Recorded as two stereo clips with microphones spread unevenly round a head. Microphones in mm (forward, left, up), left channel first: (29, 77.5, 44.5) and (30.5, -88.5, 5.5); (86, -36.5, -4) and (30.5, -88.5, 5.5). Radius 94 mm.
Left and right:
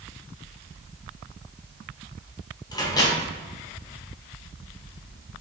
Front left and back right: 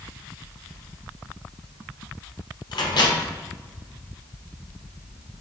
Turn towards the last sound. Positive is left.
turn(degrees=20)